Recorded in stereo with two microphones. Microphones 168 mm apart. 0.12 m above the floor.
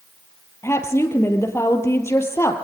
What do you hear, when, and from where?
0.6 s a woman speaking: 15° left (ahead or behind), 3 m